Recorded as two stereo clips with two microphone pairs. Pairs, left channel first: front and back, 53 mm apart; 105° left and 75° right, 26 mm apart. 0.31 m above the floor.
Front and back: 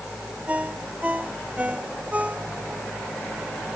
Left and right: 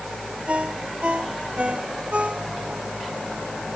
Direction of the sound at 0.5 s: 115° right.